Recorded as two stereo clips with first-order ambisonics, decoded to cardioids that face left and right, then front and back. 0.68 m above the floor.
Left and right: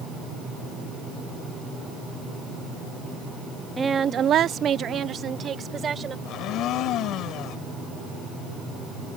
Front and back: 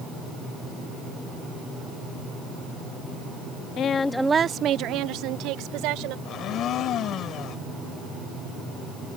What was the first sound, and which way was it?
A woman speaking, 20° right.